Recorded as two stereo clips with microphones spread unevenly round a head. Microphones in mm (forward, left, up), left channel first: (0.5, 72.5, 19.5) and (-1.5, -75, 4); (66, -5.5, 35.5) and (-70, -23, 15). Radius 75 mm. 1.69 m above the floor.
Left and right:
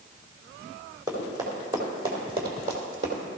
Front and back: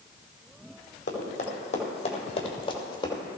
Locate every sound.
1.1 s running footsteps: 20° right, 4.5 m; by 3.2 s 50° right, 3 m